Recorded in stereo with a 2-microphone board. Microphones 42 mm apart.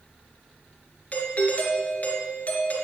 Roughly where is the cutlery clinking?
I don't hear cutlery clinking.